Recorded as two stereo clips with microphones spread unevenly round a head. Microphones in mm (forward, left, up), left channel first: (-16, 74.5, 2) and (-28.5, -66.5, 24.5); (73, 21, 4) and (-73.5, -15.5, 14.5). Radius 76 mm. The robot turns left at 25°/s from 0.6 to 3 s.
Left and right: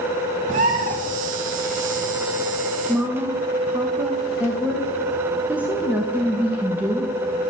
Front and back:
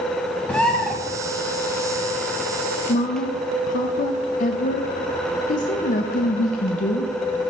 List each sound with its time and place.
0.5 s a bird: 70° right, 1.3 m; by 0.9 s 80° right, 1.3 m
2.9 s a woman speaking: 10° right, 0.6 m